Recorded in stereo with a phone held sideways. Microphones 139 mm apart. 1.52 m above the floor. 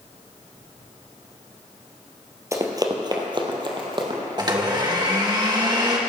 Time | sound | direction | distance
2.5 | running footsteps | 20° right (ahead or behind) | 1.7 m
4.4 | a blender | 30° right (ahead or behind) | 1.7 m